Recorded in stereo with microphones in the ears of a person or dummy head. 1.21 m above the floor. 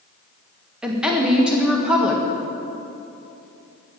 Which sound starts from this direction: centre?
A woman speaking, at 0.8 s.